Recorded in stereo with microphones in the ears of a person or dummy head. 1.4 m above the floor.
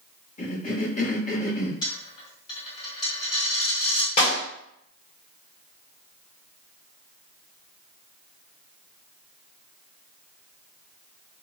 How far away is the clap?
About 1.3 m.